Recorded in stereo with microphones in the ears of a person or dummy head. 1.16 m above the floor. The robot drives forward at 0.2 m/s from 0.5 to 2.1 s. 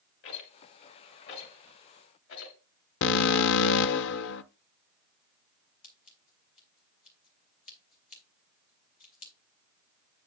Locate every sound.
0.2 s a rattle: 65° left (ahead or behind), 2.5 m; by 2.5 s 70° left (ahead or behind), 2.5 m
3.0 s an alarm: 65° left (ahead or behind), 0.6 m
5.8 s scissors: 45° left (ahead or behind), 2 m